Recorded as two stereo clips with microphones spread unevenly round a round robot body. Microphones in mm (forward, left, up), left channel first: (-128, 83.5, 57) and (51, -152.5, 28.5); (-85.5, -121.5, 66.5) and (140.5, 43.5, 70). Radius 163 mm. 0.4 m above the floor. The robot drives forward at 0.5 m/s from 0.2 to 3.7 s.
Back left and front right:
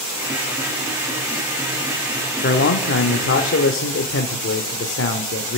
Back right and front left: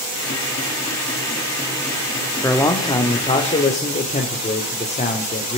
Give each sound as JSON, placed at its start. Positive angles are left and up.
{"t": 2.4, "sound": "a man speaking", "azimuth_deg": 145, "distance_m": 1.4}